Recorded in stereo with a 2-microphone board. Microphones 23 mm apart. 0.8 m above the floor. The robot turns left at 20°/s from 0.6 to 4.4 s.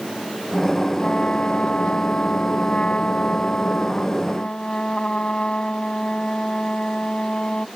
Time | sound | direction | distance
1.0 | a trumpet | 125° left | ?